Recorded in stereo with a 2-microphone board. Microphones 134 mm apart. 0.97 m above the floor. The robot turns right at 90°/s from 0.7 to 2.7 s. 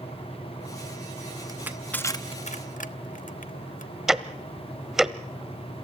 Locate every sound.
1.5 s crushing: 30° right (ahead or behind), 0.9 m; by 3.9 s 80° left, 0.9 m
4.1 s ticking: 5° right (ahead or behind), 0.8 m